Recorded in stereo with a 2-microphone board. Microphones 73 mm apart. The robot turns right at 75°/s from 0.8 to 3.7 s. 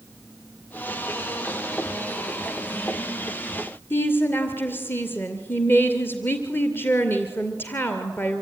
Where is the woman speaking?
30° left (ahead or behind), 2.5 m.